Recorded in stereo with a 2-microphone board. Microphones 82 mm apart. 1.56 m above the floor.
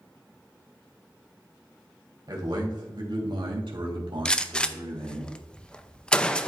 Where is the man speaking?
55° right (ahead or behind), 2.5 m; by 5.2 s 85° right, 3 m.